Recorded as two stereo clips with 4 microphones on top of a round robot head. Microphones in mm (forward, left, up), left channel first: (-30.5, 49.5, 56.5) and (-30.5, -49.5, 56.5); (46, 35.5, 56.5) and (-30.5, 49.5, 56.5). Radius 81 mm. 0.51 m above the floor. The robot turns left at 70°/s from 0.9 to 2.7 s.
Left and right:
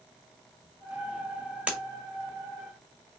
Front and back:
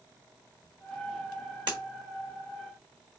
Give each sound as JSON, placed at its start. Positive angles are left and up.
{"t": 1.7, "sound": "breaking glass", "azimuth_deg": -165, "distance_m": 1.6}